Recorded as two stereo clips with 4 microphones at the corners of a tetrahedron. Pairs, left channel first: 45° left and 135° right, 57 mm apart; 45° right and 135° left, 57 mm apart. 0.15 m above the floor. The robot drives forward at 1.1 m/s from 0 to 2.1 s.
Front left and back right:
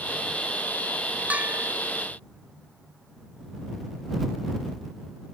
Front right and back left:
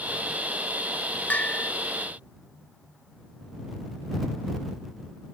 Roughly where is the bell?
Right.